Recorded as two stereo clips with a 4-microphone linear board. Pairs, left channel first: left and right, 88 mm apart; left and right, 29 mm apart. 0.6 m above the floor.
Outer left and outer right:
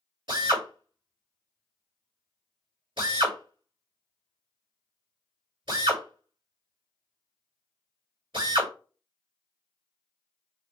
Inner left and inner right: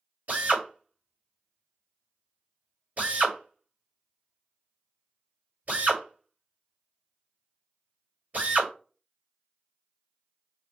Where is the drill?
65° right (ahead or behind), 2 m.